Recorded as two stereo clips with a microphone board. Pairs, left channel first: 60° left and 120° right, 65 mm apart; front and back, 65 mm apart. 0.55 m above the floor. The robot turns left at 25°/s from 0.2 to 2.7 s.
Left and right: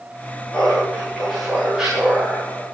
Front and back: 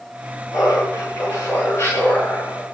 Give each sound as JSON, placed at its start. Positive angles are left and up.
{"t": 0.5, "sound": "laughter", "azimuth_deg": -5, "distance_m": 8.5}